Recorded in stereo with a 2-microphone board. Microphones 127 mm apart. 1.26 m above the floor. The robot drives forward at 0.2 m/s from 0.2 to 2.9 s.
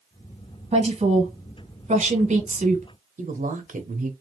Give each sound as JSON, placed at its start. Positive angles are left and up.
{"t": 0.7, "sound": "a woman speaking", "side_deg": -55, "distance_m": 1.3}
{"t": 3.2, "sound": "a woman speaking", "side_deg": -80, "distance_m": 0.8}